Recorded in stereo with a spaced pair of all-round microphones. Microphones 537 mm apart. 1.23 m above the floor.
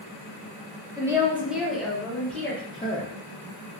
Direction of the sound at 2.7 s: 10° left (ahead or behind).